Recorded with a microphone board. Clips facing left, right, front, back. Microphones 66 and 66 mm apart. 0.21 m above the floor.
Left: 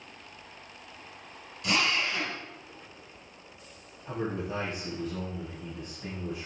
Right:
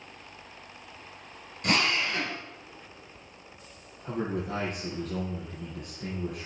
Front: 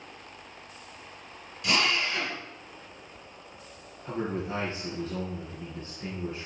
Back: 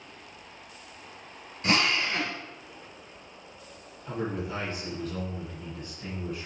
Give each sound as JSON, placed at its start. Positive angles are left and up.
{"t": 1.6, "sound": "a drill", "azimuth_deg": -125, "distance_m": 3.0}
{"t": 4.0, "sound": "a man speaking", "azimuth_deg": -65, "distance_m": 4.0}